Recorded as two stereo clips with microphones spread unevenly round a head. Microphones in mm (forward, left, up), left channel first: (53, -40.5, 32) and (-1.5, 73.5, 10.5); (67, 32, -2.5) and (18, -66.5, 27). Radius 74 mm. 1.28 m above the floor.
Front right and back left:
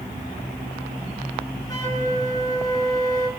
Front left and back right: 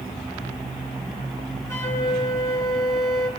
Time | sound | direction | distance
1.7 | a flute | 5° right | 6.5 m